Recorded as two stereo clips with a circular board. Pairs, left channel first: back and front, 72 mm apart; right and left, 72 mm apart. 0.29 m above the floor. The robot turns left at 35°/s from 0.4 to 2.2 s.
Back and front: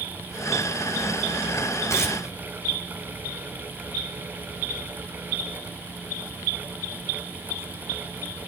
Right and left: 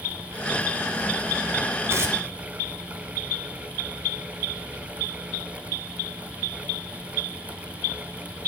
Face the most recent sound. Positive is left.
turn(degrees=130)